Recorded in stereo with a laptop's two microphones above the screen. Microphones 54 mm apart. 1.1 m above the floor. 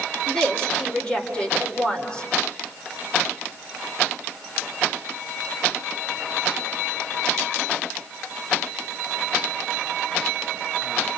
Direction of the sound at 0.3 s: 20° left (ahead or behind).